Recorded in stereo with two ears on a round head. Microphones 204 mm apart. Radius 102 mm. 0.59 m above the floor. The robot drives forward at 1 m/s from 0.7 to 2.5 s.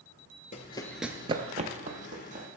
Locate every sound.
0.5 s running footsteps: 30° left (ahead or behind), 0.7 m; by 2.5 s 35° right (ahead or behind), 2 m